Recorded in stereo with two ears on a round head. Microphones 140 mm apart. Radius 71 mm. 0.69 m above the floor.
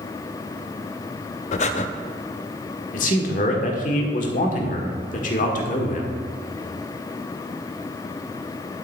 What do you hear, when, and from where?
1.5 s breathing: 45° left (ahead or behind), 0.5 m
2.9 s a man speaking: 60° left (ahead or behind), 1.5 m